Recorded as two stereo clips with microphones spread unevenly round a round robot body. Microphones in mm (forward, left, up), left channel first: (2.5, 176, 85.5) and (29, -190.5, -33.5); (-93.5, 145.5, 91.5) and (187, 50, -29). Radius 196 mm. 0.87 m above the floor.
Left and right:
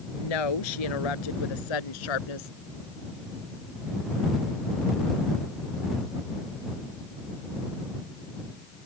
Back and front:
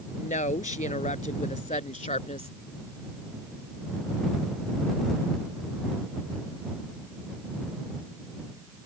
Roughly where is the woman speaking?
Left.